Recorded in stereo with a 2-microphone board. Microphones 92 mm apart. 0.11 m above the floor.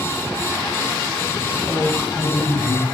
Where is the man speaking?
10° left (ahead or behind), 5 m; by 2.9 s 30° left (ahead or behind), 4.5 m.